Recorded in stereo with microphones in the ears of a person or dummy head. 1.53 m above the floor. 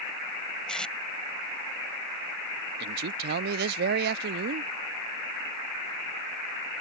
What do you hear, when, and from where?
0.7 s tape being pulled: 10° left (ahead or behind)
2.8 s a man speaking: 60° right (ahead or behind)